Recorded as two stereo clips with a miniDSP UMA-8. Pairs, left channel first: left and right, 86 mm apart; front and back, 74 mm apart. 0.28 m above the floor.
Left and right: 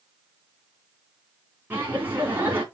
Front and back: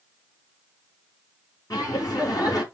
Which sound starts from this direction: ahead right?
Laughter, at 1.7 s.